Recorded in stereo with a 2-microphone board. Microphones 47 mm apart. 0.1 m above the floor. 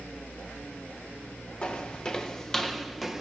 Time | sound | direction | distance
1.6 | footsteps | 25° left (ahead or behind) | 2.5 m